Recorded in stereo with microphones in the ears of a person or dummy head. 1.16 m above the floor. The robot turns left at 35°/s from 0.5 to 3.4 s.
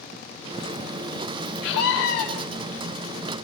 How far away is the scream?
About 3.5 m.